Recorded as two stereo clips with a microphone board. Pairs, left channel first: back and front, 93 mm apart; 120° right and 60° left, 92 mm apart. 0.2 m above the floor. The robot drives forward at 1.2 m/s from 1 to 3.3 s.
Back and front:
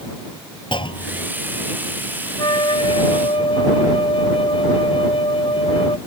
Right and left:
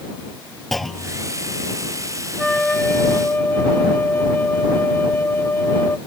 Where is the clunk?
150° left; by 1.3 s 155° left.